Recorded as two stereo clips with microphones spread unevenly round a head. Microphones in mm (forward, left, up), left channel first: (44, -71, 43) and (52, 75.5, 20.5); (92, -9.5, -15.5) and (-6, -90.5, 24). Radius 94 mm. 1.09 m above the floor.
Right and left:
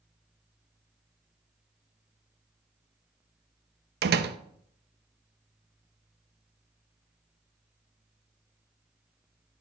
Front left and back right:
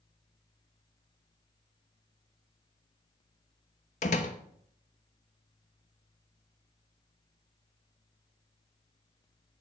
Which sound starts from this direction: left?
A door slam, at 4.0 s.